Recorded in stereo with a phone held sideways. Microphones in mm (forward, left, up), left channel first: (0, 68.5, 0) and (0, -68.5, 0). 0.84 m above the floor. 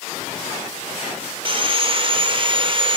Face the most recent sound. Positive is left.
turn(degrees=-40)  # may be behind; listen again after turning